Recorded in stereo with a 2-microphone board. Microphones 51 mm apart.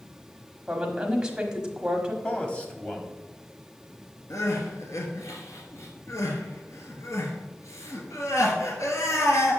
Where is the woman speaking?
15° right (ahead or behind), 1.0 m.